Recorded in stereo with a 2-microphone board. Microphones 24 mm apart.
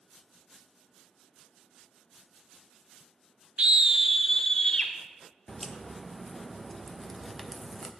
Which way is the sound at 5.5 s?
5° left (ahead or behind).